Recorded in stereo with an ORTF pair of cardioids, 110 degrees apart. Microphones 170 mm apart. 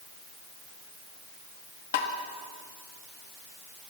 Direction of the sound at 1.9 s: 65° left.